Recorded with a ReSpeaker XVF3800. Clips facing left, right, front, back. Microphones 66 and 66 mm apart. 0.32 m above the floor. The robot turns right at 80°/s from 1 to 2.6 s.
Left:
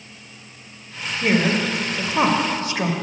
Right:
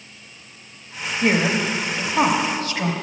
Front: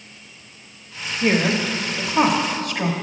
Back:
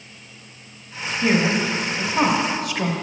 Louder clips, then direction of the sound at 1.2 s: Even, even; 15° right.